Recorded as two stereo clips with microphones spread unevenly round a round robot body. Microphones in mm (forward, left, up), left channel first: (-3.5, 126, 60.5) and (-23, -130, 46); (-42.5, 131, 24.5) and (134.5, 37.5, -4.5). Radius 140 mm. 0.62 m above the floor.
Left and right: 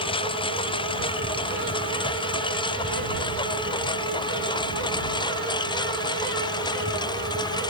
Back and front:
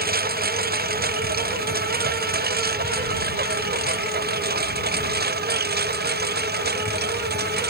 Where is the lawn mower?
15° left; by 7.7 s 10° left.